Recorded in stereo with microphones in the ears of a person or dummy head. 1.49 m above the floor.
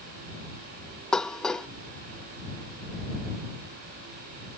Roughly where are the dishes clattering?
Centre.